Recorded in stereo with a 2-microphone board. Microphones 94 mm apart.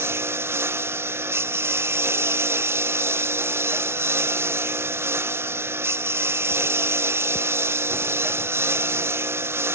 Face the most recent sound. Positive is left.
turn(degrees=-25)  # may be behind; listen again after turning